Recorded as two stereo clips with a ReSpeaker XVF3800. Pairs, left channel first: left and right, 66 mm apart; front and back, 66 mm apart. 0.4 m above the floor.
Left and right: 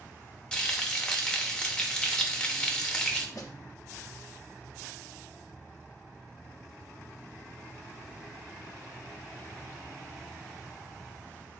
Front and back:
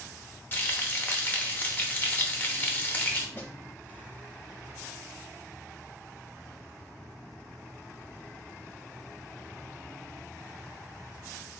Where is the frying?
25° left, 0.7 m.